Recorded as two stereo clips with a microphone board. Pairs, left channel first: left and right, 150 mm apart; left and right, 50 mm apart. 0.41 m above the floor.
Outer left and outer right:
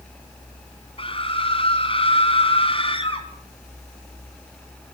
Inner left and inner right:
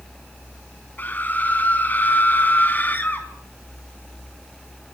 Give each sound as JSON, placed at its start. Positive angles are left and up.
{"t": 1.0, "sound": "a scream", "side_deg": 35, "distance_m": 4.0}